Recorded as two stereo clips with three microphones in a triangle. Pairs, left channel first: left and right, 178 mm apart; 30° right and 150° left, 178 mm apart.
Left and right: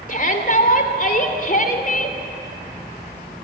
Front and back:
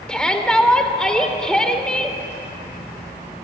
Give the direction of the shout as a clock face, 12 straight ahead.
10 o'clock.